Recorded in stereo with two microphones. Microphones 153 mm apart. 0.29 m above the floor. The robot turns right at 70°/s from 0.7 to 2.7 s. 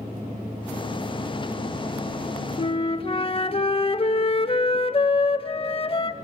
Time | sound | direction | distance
2.6 | a flute | 35° left (ahead or behind) | 0.5 m